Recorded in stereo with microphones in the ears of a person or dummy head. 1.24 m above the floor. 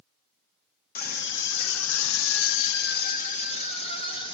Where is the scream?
40° left (ahead or behind), 2 m; by 4.4 s 30° left (ahead or behind), 3 m.